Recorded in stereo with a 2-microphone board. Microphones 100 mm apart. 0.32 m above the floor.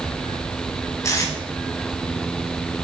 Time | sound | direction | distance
1.0 | tape being pulled | 35° left (ahead or behind) | 1.4 m